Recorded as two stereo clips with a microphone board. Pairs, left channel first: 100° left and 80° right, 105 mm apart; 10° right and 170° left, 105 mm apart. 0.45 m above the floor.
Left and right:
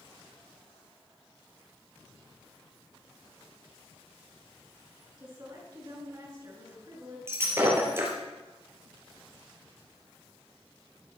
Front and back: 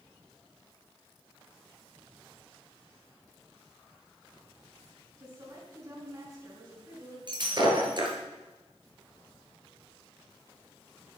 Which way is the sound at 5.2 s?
140° right.